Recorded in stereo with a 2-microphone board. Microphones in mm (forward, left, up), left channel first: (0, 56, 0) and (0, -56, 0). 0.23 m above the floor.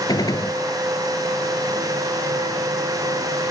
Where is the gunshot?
40° left (ahead or behind).